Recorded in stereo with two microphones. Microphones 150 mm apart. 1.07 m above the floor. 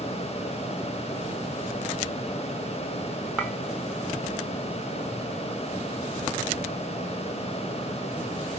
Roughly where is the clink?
Centre.